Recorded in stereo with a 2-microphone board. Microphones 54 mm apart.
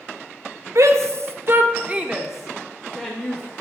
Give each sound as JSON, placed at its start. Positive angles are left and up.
{"t": 0.8, "sound": "a shout", "side_deg": -65, "distance_m": 0.7}